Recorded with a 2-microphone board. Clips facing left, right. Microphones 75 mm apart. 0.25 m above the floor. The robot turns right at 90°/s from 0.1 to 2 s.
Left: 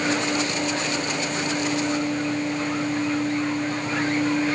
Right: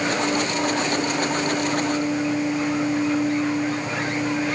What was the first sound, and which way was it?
Only background noise.